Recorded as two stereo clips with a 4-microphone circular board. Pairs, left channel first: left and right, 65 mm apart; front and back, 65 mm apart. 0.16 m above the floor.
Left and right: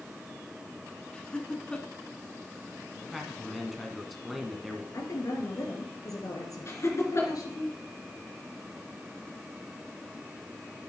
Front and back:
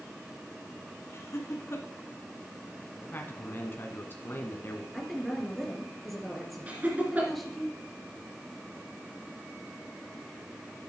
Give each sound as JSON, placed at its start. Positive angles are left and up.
{"t": 1.1, "sound": "laughter", "azimuth_deg": 20, "distance_m": 1.8}
{"t": 3.1, "sound": "a man speaking", "azimuth_deg": 0, "distance_m": 1.3}
{"t": 4.9, "sound": "a woman speaking", "azimuth_deg": 90, "distance_m": 3.0}
{"t": 6.7, "sound": "laughter", "azimuth_deg": 120, "distance_m": 2.5}